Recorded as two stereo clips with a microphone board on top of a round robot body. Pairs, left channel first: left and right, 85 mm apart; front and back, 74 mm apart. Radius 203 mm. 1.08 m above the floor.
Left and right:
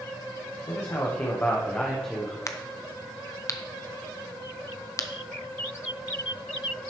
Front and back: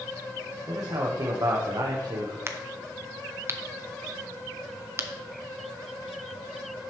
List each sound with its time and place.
0.7 s a man speaking: 145° left, 1.5 m; by 2.4 s 175° right, 1.2 m
2.5 s a crack: 135° left, 1.1 m